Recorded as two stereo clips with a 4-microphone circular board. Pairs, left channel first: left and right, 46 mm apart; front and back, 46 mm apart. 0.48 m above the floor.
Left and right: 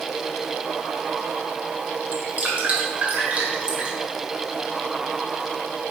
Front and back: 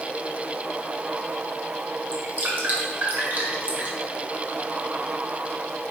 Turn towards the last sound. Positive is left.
turn(degrees=-140)